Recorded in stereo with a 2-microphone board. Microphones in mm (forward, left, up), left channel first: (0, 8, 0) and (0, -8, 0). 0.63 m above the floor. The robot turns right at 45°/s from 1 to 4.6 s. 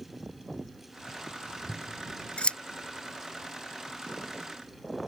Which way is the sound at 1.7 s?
70° left (ahead or behind).